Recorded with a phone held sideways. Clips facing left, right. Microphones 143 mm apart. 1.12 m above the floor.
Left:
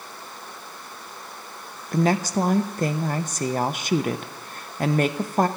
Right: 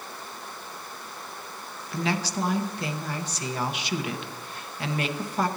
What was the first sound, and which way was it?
A woman speaking, 50° left (ahead or behind).